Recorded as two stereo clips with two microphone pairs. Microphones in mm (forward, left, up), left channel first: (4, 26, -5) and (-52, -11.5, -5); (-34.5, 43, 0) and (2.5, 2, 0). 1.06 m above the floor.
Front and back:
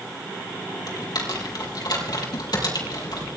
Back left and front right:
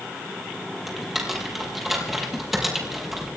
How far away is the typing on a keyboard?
About 5 m.